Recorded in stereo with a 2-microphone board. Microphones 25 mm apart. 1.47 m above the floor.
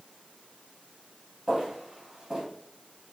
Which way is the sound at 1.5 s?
25° right (ahead or behind).